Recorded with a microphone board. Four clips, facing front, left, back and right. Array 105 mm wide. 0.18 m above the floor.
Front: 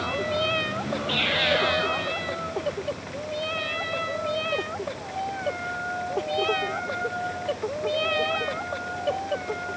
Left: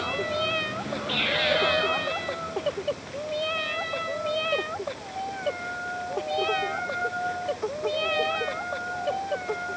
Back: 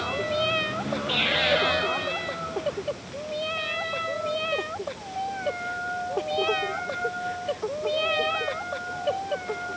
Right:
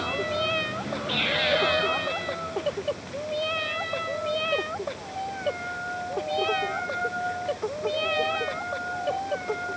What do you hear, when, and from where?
Only background noise.